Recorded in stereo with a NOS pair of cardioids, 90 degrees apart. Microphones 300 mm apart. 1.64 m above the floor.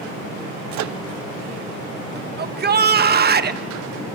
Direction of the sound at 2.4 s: 35° right.